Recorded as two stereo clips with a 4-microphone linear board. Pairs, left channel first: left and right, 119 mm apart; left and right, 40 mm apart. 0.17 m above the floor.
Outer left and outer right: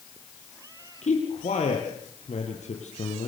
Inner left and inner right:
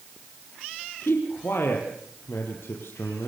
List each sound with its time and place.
1.0 s a man speaking: 70° left (ahead or behind), 4.5 m